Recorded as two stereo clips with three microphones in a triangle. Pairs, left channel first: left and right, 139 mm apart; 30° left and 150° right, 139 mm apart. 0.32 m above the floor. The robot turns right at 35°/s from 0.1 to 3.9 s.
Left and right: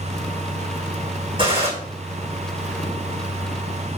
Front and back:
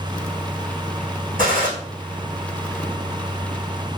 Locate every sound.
1.4 s a gunshot: 145° right, 5.5 m; by 1.7 s 135° right, 5.5 m